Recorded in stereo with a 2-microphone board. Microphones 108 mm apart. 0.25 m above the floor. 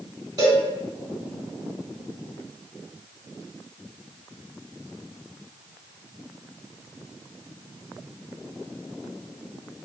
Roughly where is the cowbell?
Right.